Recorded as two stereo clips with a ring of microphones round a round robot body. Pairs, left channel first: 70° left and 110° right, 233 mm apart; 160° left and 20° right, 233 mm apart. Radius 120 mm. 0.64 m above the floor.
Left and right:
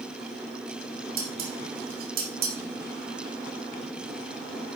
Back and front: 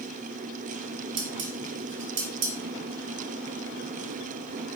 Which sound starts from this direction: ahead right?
Dishes clattering, at 1.2 s.